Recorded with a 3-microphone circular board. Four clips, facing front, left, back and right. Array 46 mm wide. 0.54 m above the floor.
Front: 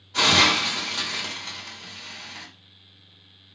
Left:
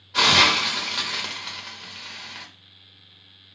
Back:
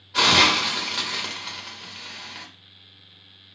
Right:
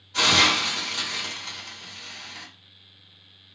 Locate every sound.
0.1 s a hiss: 120° left, 1.2 m